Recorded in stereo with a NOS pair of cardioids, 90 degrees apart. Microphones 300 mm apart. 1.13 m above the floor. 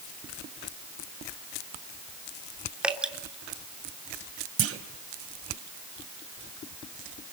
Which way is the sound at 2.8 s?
5° right.